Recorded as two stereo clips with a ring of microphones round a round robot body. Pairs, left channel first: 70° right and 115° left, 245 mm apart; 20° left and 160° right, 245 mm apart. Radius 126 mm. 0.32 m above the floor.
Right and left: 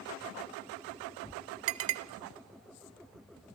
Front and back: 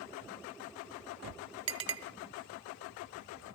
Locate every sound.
1.7 s a clink: 135° left, 1.0 m